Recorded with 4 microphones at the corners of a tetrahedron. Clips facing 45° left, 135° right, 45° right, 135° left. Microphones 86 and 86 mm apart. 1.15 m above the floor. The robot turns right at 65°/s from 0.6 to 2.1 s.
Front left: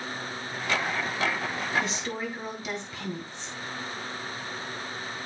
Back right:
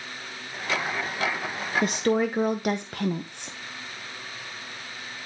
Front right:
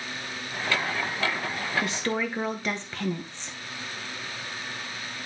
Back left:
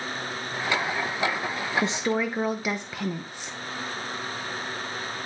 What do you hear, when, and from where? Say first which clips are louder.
1.8 s a woman speaking: back right 9 dB, back left 3 dB; 165° right, 0.8 m; by 3.6 s 145° right, 0.8 m